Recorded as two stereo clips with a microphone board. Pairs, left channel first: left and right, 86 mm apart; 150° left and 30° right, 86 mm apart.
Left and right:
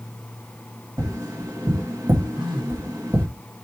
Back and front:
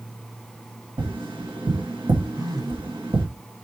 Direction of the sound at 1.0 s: 45° right.